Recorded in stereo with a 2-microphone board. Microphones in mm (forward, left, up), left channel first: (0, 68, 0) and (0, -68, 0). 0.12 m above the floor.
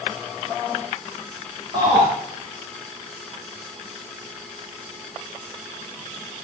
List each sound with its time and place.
1.7 s a shout: 45° right (ahead or behind), 6 m